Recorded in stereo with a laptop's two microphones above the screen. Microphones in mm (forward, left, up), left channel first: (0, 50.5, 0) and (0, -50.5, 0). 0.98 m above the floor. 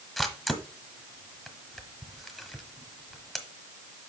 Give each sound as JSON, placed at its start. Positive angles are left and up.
{"t": 0.2, "sound": "a camera shutter", "side_deg": 0, "distance_m": 1.6}